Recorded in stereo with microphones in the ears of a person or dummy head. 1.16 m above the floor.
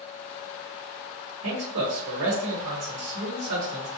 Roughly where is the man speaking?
Right.